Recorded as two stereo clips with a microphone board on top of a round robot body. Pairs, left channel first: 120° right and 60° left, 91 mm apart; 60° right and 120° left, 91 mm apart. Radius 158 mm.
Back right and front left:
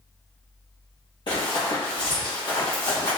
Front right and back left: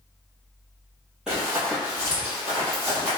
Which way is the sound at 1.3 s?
160° right.